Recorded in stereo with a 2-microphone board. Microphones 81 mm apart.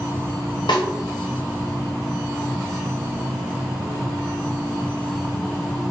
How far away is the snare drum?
About 0.8 m.